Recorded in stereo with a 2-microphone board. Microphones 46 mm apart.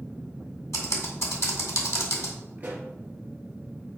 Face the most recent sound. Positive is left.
turn(degrees=-30)  # may be behind; listen again after turning